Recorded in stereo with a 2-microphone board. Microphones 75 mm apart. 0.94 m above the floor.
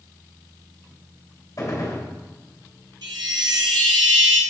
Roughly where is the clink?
I don't hear a clink.